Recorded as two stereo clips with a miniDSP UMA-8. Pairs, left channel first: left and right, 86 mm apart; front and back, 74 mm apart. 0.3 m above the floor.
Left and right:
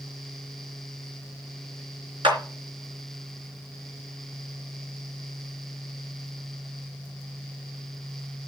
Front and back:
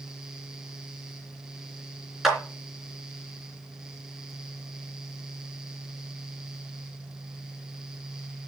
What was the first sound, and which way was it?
A clap, 95° right.